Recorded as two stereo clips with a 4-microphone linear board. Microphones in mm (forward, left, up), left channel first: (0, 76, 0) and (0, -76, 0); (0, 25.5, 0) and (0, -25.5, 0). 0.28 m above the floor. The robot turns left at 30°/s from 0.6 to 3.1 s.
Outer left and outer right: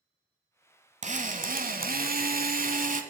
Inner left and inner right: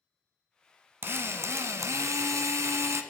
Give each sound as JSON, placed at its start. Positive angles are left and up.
{"t": 1.0, "sound": "a drill", "azimuth_deg": -55, "distance_m": 1.0}